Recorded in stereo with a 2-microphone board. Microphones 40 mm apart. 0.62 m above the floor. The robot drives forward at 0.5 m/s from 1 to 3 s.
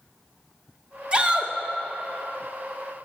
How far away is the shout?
About 1.6 m.